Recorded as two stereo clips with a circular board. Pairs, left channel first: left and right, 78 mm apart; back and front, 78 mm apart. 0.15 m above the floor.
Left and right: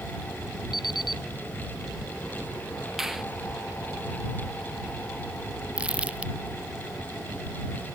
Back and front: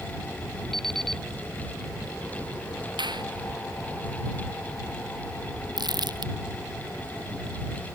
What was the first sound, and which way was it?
An alarm clock, 95° left.